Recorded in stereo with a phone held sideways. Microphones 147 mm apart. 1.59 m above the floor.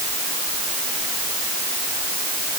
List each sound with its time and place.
Only background noise.